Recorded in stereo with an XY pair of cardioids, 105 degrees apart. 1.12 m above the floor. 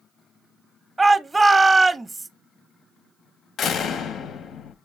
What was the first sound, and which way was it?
A shout, 15° right.